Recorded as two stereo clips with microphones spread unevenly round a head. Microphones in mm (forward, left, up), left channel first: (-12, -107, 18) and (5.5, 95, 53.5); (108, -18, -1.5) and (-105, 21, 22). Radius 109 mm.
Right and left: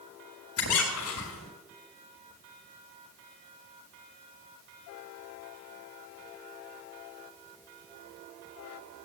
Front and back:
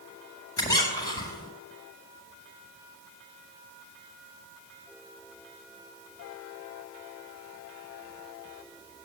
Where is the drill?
No drill in this recording.